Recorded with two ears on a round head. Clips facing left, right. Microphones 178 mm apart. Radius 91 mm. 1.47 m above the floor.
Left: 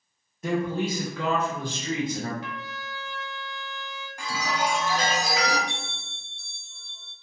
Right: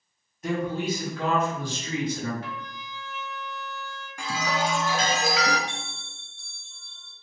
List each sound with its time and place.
0.4 s a man speaking: 80° left, 0.8 m; by 2.3 s 40° left (ahead or behind), 1.7 m
2.4 s a trumpet: 55° left (ahead or behind), 0.8 m
4.2 s a chime: 65° right (ahead or behind), 0.7 m
5.7 s a bell: 30° left (ahead or behind), 2.0 m